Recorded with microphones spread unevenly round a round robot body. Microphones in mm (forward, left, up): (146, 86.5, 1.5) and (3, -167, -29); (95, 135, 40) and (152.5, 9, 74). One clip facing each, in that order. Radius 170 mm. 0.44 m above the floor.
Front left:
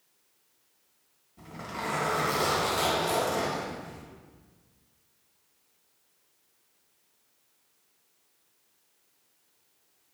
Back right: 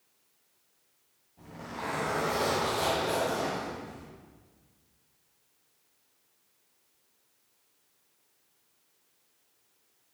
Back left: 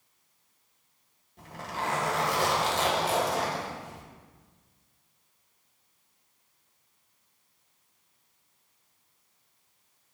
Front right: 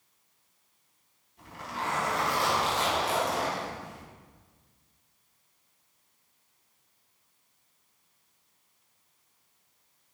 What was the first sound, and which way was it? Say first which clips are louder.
A zipper: front left 1 dB, back left 2 dB; 125° left.